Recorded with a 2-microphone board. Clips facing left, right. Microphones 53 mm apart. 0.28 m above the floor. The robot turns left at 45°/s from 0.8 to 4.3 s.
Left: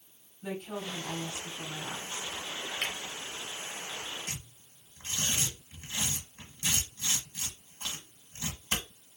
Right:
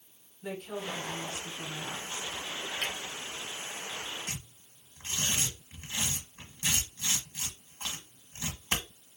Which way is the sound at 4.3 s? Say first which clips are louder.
Right 1 dB; 30° right (ahead or behind).